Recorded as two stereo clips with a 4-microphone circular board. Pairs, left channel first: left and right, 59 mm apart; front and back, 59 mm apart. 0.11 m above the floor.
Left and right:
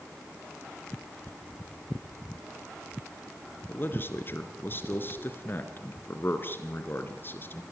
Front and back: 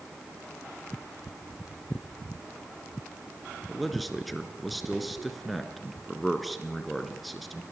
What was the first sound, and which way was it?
A man speaking, 90° left.